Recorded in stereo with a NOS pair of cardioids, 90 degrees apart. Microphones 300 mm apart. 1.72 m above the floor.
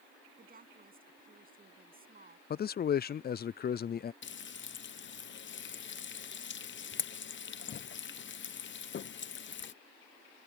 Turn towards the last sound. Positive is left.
turn(degrees=40)